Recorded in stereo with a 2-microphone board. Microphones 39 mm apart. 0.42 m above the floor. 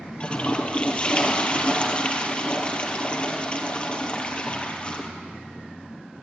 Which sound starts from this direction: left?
A toilet flushing, at 0.2 s.